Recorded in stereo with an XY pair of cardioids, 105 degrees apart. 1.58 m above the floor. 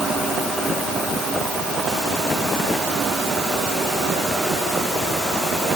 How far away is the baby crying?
No baby crying in this recording.